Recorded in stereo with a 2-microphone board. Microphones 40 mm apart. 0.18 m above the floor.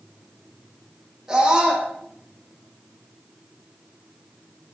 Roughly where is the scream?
Centre.